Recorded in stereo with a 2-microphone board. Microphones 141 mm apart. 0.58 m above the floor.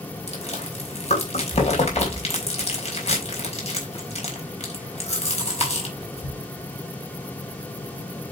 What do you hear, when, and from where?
0.3 s chewing: 50° left (ahead or behind), 4 m